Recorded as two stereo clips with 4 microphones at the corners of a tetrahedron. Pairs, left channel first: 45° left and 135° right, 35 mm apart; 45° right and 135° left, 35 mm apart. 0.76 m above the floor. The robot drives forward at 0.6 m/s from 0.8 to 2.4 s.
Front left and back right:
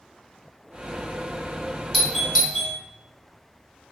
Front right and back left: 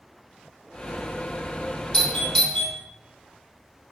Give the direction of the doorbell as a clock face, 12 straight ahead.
2 o'clock.